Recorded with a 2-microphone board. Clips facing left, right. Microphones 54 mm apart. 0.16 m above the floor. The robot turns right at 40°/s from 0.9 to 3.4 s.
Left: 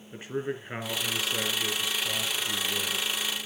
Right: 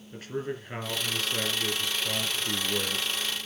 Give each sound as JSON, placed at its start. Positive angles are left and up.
{"t": 0.1, "sound": "a man speaking", "azimuth_deg": 155, "distance_m": 3.0}